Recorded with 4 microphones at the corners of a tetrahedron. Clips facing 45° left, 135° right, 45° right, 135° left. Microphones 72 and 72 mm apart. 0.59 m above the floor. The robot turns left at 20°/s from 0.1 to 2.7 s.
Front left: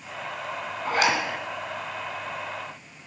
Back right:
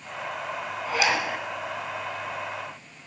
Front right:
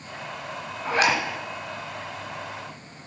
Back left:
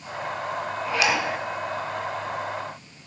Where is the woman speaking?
I don't hear a woman speaking.